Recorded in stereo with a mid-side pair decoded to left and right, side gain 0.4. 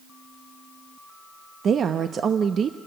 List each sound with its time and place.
1.6 s a woman speaking: 60° right, 0.9 m